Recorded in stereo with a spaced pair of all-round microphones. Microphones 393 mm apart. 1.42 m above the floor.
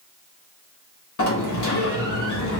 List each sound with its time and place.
1.2 s a sliding door: 45° left (ahead or behind), 0.9 m